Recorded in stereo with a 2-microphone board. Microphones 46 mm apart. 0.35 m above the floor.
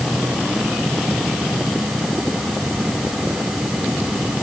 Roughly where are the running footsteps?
I don't hear running footsteps.